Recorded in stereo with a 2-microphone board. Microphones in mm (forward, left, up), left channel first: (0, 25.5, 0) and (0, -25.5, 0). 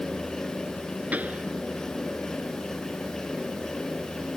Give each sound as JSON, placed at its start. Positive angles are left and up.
{"t": 1.1, "sound": "a pop", "side_deg": -30}